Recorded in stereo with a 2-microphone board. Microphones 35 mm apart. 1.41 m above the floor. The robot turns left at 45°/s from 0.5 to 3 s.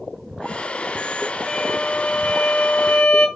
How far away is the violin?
About 2.5 m.